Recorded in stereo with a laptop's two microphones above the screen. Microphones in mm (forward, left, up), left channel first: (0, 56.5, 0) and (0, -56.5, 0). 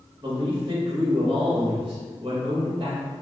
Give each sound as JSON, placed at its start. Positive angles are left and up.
{"t": 0.2, "sound": "a man speaking", "side_deg": -50, "distance_m": 1.2}